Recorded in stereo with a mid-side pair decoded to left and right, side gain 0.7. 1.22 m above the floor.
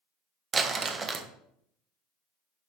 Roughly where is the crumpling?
Ahead right.